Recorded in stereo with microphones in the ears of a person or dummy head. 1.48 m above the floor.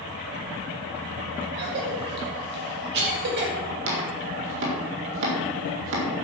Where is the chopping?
70° right (ahead or behind), 4 m.